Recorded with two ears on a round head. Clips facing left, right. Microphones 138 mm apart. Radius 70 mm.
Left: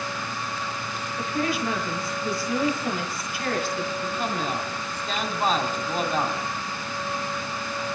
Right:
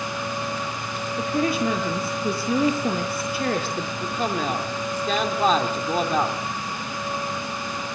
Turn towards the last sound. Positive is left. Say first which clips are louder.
# right 2 dB
turn(degrees=-70)  # may be behind; listen again after turning